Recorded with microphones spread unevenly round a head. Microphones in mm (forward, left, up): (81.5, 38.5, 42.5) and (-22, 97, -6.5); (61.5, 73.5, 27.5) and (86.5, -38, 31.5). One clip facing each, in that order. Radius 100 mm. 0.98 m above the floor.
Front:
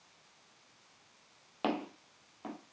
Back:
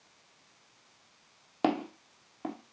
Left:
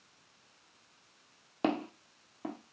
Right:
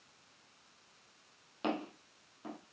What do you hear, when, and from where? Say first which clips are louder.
1.6 s footsteps: back 5 dB, left 5 dB; 95° left, 1.2 m